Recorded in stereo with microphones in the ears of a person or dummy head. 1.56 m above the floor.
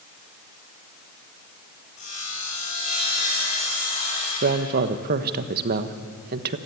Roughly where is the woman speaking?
Right.